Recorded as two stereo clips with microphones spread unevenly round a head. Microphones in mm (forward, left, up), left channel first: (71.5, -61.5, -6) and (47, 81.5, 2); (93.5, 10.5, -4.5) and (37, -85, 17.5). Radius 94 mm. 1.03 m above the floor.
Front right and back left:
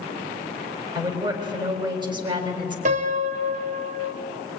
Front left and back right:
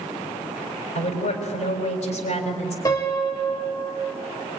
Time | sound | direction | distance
0.9 | a woman speaking | 40° left | 5 m
2.9 | a piano | 135° left | 0.8 m